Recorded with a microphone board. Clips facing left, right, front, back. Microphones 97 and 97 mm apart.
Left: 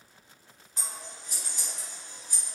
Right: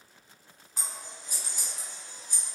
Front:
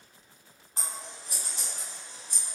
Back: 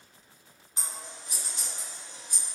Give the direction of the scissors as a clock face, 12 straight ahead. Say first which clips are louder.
Even, front 1 dB; 12 o'clock.